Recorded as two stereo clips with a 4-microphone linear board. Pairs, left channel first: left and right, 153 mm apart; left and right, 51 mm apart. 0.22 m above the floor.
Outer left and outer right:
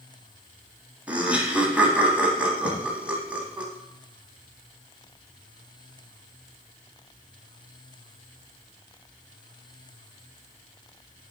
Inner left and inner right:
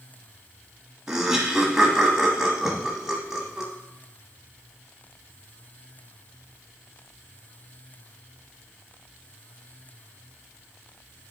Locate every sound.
1.1 s laughter: 10° right (ahead or behind), 1.3 m
2.6 s a thud: 45° left (ahead or behind), 4 m